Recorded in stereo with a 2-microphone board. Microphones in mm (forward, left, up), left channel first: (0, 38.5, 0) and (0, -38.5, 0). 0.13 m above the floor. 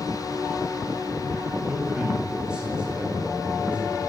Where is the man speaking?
10° right (ahead or behind), 10 m; by 4.0 s 15° right (ahead or behind), 11 m.